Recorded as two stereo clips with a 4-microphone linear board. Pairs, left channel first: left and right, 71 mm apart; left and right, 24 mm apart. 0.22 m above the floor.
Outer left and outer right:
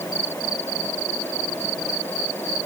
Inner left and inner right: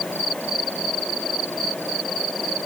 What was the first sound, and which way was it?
Only background noise.